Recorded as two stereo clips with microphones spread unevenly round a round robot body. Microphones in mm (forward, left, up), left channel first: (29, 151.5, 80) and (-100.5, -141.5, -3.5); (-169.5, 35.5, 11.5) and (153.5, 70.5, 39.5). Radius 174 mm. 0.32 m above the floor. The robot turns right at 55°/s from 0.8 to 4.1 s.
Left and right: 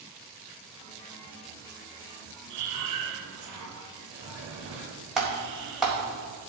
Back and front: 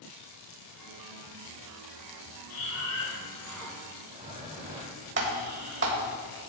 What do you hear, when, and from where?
2.5 s breathing: 145° right, 2.0 m; by 6.2 s 60° right, 2.0 m
5.2 s typing on a keyboard: 40° right, 1.6 m